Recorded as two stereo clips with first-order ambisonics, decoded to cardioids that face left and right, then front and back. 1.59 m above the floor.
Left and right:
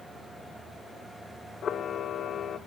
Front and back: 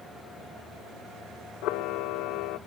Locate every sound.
1.6 s a camera shutter: 30° left, 0.7 m